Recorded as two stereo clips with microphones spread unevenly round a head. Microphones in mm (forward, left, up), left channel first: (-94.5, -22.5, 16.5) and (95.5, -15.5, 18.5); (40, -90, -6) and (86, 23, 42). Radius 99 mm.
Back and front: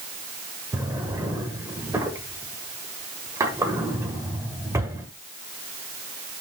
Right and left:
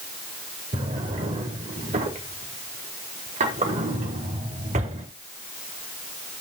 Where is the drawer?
80° left, 1.5 m.